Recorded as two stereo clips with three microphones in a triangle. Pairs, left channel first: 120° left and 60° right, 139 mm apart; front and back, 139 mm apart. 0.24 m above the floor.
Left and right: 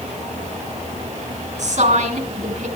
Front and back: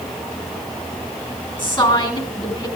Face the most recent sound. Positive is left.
turn(degrees=-45)